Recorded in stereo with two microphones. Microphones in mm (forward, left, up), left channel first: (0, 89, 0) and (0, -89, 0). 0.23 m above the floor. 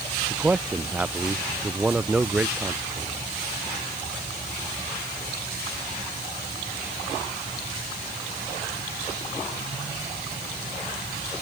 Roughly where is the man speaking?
Centre.